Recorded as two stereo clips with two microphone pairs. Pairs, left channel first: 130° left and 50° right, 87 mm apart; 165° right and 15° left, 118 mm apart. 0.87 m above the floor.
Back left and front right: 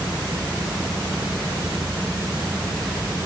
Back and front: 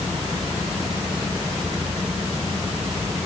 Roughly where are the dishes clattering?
No dishes clattering in this recording.